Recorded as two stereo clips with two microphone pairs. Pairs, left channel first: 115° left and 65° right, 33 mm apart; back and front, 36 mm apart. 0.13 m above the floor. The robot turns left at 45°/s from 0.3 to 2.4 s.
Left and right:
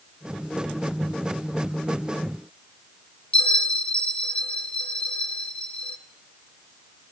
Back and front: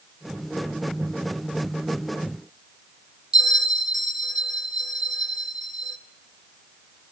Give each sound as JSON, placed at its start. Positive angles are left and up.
{"t": 3.3, "sound": "a bell", "azimuth_deg": 75, "distance_m": 0.6}